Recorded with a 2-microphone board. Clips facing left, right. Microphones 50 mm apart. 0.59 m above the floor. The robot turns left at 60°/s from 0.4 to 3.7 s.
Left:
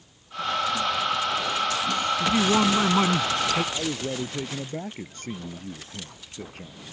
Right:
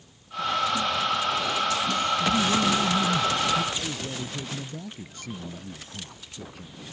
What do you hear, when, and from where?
2.2 s a man speaking: 140° left; by 3.6 s 55° left
3.7 s a man speaking: 45° left (ahead or behind)